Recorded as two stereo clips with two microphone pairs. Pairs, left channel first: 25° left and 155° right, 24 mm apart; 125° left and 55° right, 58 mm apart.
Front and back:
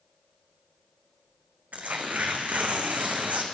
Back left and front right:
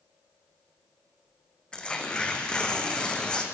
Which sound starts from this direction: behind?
Tearing paper, at 1.7 s.